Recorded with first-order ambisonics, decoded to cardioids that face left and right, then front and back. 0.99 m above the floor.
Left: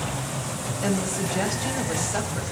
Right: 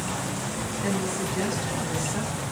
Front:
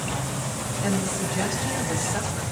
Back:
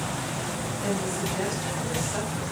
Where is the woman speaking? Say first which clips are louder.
Left 2 dB, front 2 dB; 85° left, 4.5 m.